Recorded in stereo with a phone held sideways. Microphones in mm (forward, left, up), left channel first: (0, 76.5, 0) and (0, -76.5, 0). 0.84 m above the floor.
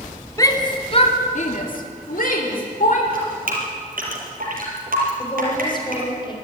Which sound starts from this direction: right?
Dripping, at 3.1 s.